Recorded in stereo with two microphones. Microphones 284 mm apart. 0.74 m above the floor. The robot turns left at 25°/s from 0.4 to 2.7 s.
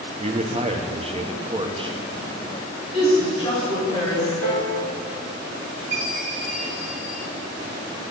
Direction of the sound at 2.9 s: 25° left (ahead or behind).